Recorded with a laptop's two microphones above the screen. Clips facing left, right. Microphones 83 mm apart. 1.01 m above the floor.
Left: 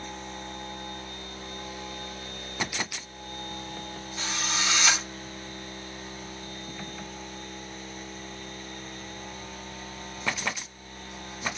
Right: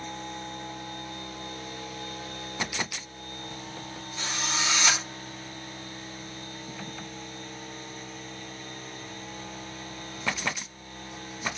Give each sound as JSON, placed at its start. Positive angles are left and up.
{"t": 4.2, "sound": "a drill", "side_deg": 5, "distance_m": 4.0}